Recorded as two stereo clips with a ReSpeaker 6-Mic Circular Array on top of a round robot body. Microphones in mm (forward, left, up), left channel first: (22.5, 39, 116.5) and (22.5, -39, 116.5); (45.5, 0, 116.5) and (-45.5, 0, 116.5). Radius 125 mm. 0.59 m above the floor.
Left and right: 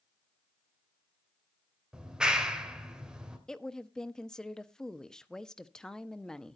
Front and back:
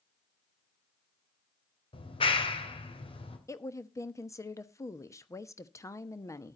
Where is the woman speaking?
15° left, 1.2 m.